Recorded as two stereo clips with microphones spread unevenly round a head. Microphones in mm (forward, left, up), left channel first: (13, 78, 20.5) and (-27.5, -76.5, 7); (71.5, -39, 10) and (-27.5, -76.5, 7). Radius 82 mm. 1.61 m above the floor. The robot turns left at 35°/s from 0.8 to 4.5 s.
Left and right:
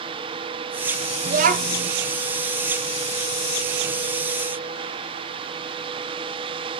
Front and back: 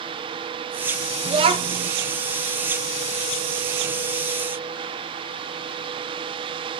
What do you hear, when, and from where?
1.2 s a child speaking: 135° right, 0.6 m; by 1.9 s 155° right, 0.6 m